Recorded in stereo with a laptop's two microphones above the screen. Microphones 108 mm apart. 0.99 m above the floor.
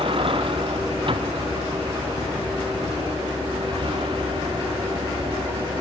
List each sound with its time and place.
0.0 s a vehicle: 55° right (ahead or behind)